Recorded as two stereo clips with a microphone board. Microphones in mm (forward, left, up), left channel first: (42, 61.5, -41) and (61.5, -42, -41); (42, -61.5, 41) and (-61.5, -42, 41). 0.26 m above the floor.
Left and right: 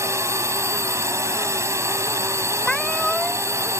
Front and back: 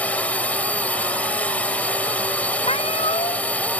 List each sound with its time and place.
0.0 s a drone: 70° right
2.6 s a cat meowing: 15° left